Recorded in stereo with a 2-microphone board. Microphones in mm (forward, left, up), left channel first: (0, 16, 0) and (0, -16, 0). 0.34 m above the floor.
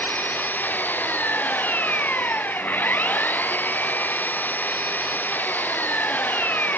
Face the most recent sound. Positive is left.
turn(degrees=65)  # may be behind; listen again after turning